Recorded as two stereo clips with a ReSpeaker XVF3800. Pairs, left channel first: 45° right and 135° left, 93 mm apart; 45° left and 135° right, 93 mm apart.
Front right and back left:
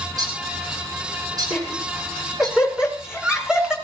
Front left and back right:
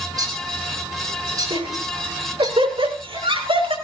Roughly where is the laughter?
Behind right.